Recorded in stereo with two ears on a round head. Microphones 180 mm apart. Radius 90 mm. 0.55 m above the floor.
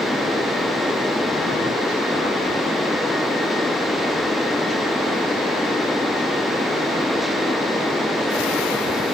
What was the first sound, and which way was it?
Only background noise.